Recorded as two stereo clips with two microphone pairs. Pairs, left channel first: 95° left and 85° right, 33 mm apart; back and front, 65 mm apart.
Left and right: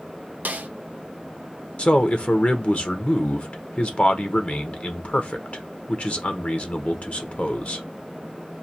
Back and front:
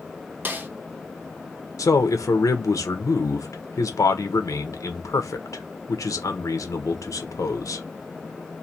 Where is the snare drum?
60° right, 0.6 m.